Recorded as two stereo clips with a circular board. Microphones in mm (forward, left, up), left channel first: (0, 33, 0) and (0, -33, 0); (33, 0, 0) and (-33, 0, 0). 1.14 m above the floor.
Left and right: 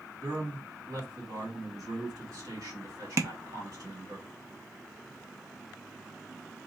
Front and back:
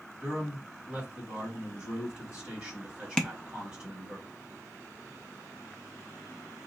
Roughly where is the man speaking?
Right.